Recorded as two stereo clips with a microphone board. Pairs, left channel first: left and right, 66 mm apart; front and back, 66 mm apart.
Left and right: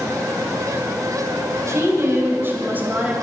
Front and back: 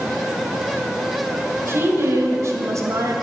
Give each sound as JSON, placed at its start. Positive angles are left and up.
{"t": 1.7, "sound": "a woman speaking", "azimuth_deg": -130, "distance_m": 2.5}